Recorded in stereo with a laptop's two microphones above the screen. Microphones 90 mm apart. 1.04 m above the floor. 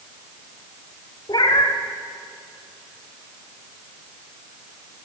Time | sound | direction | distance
1.3 | a cat meowing | 55° left (ahead or behind) | 1.1 m